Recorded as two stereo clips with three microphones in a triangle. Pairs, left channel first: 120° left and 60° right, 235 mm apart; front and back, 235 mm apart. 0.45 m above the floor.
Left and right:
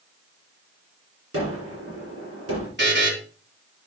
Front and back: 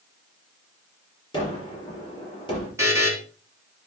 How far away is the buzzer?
About 2.5 m.